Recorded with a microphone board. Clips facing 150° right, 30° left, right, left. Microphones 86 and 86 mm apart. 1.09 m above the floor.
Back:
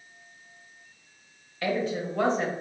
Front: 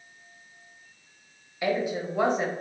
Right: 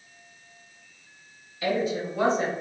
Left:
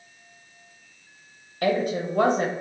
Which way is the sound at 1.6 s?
105° left.